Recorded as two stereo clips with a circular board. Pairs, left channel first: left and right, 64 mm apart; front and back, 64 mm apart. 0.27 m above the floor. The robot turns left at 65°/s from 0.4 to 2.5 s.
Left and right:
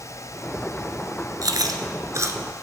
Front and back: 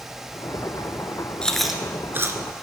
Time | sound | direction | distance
1.4 | chewing | 75° right | 1.2 m